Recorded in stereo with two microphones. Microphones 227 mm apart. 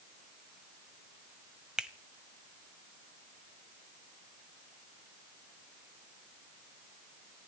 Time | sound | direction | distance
1.8 | a finger snap | 5° right (ahead or behind) | 1.0 m